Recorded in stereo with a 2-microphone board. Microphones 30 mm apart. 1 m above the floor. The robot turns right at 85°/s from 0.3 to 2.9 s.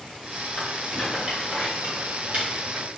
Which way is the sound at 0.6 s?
25° left (ahead or behind).